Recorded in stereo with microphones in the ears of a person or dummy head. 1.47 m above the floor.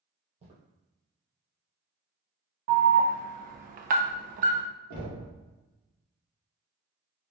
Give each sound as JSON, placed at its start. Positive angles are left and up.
{"t": 0.4, "sound": "footsteps", "side_deg": -35, "distance_m": 1.9}
{"t": 2.7, "sound": "an alarm", "side_deg": -40, "distance_m": 0.5}
{"t": 4.9, "sound": "knocking", "side_deg": -55, "distance_m": 1.5}